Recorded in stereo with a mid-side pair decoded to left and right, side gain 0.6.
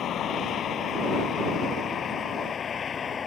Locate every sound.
0.0 s a vehicle: 50° left; by 3.3 s 30° left